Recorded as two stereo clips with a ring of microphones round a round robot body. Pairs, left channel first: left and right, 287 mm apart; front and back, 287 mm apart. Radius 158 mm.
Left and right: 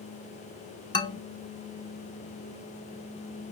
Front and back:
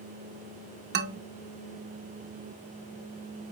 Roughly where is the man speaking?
Behind left.